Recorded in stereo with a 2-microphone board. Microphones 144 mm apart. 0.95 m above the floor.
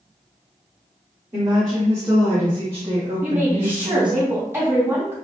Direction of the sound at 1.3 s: 35° right (ahead or behind).